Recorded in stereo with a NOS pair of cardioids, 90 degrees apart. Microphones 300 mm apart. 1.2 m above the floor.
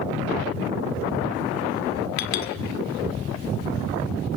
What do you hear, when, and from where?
2.2 s a clink: 65° left, 2.0 m